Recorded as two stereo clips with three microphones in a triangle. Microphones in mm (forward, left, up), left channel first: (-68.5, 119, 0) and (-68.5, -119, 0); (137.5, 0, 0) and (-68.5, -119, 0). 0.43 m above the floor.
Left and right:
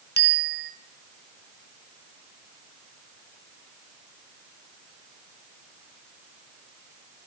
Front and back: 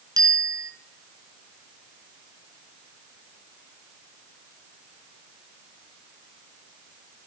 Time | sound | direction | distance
0.2 | a bicycle bell | 135° left | 4 m